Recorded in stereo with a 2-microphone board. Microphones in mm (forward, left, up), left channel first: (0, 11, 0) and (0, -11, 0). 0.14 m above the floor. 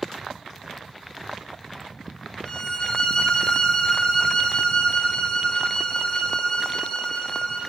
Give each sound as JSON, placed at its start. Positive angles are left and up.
{"t": 2.5, "sound": "a violin", "side_deg": 30, "distance_m": 1.8}